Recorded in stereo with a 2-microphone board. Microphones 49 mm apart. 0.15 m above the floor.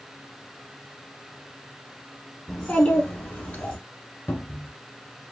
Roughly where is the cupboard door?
Left.